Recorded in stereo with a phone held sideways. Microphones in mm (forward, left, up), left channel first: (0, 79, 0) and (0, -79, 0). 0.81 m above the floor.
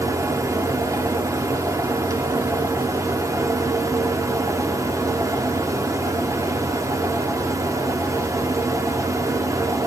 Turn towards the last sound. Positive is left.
turn(degrees=-20)  # may be behind; listen again after turning